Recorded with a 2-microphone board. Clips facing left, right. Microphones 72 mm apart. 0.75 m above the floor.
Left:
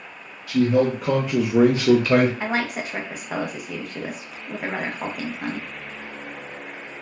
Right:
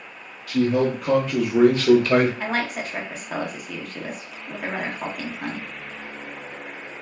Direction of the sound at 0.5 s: 5° left (ahead or behind).